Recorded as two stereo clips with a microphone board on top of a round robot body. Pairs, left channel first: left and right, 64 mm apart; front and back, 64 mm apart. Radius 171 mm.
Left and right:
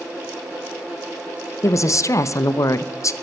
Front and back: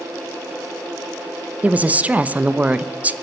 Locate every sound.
1.6 s a woman speaking: 115° left, 1.1 m